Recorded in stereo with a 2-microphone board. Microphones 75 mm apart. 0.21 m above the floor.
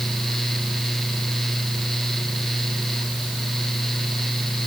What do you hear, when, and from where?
Only background noise.